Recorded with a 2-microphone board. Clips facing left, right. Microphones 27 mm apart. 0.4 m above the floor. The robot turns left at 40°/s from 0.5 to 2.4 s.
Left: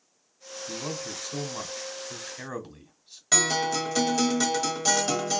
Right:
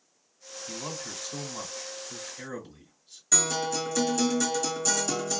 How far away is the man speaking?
About 1.3 m.